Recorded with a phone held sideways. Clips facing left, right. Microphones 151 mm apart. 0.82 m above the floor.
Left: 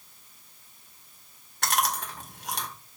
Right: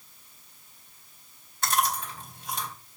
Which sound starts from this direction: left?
Chewing, at 1.6 s.